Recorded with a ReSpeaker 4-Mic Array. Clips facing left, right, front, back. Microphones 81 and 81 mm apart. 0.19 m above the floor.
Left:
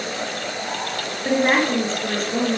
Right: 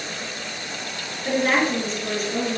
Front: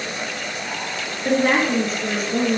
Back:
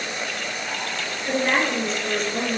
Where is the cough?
I don't hear a cough.